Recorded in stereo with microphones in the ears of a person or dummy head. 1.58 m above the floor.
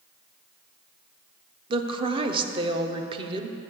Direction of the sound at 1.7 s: 35° right (ahead or behind).